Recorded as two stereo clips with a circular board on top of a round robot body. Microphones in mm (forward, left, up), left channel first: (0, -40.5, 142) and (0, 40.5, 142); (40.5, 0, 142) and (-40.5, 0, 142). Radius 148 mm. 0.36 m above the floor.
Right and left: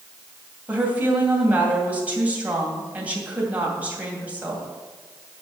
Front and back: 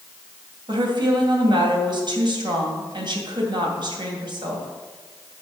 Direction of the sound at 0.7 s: 160° left.